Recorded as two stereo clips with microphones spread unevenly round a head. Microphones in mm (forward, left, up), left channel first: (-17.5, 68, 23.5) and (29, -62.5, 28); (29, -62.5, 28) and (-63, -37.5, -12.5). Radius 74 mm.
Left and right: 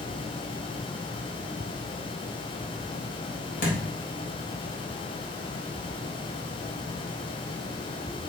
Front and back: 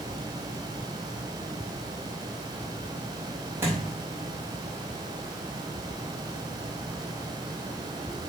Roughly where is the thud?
Left.